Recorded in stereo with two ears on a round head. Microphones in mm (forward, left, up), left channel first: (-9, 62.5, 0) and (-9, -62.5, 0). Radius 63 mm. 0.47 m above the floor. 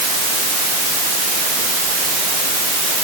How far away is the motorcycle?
No motorcycle in this recording.